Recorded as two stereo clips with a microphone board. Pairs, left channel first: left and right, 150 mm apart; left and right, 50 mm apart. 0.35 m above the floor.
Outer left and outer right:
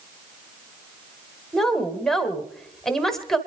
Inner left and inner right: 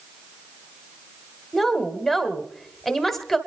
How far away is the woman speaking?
About 1.4 m.